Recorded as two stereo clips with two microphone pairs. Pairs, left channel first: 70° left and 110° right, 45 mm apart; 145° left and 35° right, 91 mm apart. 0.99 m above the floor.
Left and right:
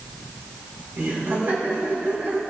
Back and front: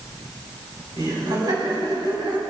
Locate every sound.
1.0 s laughter: 75° right, 5 m